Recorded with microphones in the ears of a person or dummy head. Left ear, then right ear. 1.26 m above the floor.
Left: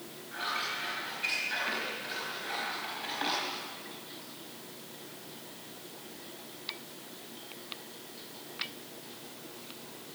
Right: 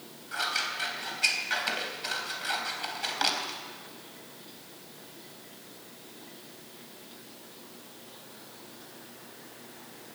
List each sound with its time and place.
0.3 s scissors: 60° right (ahead or behind), 3.5 m